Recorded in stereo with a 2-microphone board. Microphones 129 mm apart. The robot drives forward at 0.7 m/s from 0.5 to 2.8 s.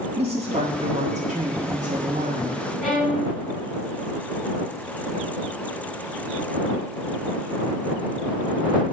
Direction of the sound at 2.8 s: 10° left (ahead or behind).